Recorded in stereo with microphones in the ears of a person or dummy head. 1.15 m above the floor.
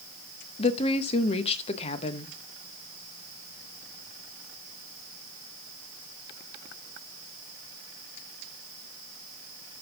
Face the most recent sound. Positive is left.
turn(degrees=30)  # may be behind; listen again after turning